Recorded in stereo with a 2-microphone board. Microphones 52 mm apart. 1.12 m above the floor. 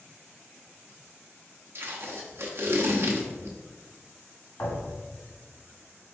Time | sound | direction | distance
1.8 | tape being pulled | 50° right (ahead or behind) | 0.8 m
4.6 | a thud | 55° left (ahead or behind) | 1.9 m